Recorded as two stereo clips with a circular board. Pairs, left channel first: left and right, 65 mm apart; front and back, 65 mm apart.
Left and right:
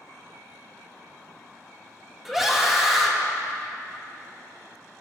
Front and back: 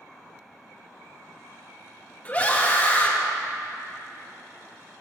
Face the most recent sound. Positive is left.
turn(degrees=-10)